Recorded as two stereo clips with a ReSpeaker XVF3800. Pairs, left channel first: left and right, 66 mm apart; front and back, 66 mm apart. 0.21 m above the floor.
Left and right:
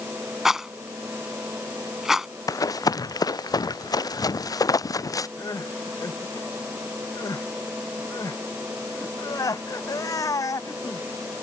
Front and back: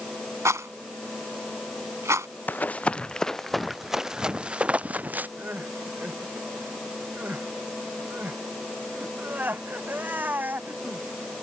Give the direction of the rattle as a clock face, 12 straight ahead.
6 o'clock.